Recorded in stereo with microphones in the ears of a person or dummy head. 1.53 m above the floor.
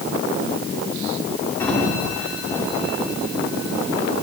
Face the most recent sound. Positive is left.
turn(degrees=5)  # may be behind; listen again after turning